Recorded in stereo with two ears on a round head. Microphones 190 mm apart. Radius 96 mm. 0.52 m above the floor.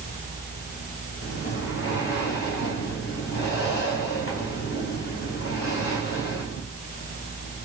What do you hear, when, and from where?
1.2 s breathing: 55° left (ahead or behind), 3.5 m